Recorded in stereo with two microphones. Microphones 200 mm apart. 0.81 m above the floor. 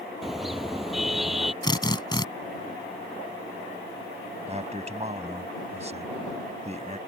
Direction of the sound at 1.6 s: 20° left (ahead or behind).